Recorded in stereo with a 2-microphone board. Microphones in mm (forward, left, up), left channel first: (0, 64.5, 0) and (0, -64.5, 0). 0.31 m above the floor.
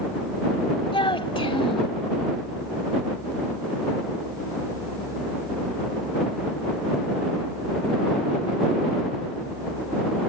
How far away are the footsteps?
No footsteps in this recording.